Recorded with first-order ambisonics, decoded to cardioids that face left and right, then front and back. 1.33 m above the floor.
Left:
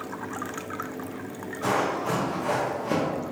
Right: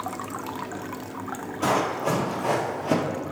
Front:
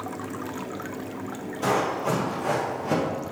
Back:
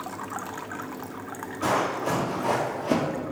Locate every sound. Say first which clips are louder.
1.6 s running footsteps: right 2 dB, front 1 dB; 80° right, 1.6 m; by 3.2 s 150° right, 1.3 m